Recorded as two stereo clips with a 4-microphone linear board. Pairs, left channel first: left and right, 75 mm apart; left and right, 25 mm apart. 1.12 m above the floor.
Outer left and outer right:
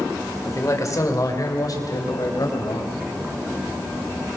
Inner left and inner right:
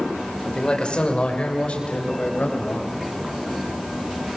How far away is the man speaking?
About 3.5 m.